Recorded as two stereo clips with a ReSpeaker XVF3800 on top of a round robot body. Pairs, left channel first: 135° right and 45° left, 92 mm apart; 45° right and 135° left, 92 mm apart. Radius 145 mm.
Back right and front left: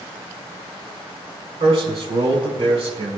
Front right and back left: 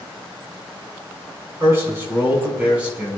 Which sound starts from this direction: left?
A man speaking, at 1.6 s.